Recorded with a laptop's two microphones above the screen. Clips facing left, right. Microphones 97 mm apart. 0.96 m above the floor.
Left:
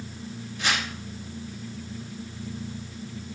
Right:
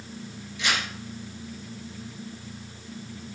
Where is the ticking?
I don't hear ticking.